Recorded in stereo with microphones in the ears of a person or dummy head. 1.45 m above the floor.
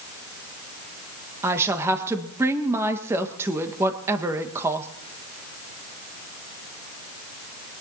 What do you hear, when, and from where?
1.4 s a woman speaking: 15° right (ahead or behind), 1.4 m